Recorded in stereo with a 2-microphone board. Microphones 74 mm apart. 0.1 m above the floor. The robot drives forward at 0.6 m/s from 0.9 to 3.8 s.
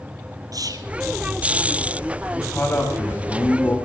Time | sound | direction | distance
0.5 | whispering | 55° right (ahead or behind) | 2 m
2.3 | a man speaking | 25° left (ahead or behind) | 9 m